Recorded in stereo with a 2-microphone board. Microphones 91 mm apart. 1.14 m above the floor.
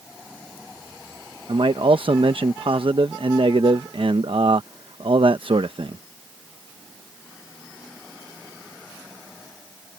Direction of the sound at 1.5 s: 75° right (ahead or behind).